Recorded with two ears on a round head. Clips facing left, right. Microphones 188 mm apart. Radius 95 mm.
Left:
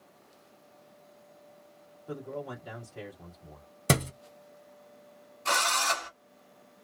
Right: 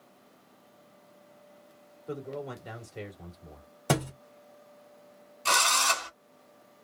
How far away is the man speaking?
About 1.5 m.